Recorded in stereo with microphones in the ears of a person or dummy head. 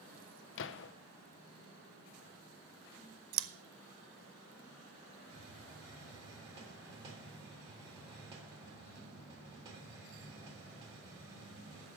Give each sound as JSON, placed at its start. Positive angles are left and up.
{"t": 0.6, "sound": "a gunshot", "side_deg": 70, "distance_m": 0.6}
{"t": 3.3, "sound": "scissors", "side_deg": -70, "distance_m": 0.8}
{"t": 5.3, "sound": "a hiss", "side_deg": -25, "distance_m": 3.0}